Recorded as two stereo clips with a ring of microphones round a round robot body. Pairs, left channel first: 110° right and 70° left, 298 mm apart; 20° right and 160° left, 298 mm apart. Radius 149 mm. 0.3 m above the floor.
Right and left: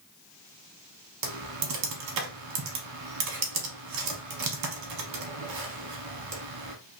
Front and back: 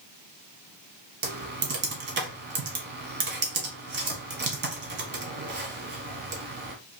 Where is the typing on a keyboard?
100° left, 1.0 m.